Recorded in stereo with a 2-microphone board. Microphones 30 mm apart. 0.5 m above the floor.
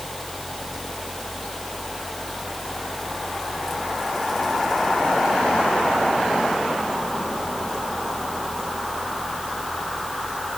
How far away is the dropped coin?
I don't hear a dropped coin.